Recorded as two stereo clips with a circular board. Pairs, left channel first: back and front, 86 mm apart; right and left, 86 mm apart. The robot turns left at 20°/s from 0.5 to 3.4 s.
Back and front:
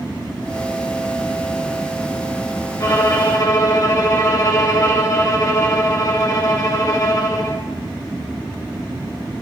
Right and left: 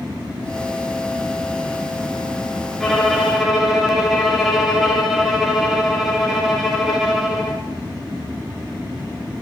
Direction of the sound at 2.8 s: 170° right.